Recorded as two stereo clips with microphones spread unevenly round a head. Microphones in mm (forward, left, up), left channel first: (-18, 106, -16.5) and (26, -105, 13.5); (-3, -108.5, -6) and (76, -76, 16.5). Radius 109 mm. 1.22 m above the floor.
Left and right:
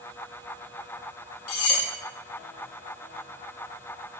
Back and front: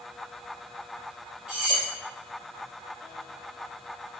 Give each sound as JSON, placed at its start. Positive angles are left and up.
{"t": 1.5, "sound": "cutlery clinking", "azimuth_deg": 100, "distance_m": 0.5}